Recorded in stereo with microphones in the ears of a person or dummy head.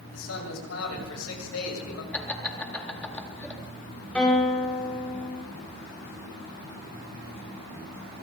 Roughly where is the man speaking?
Left.